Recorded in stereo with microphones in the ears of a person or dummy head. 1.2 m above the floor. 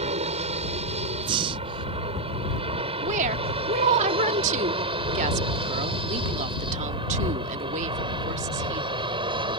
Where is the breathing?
30° right (ahead or behind).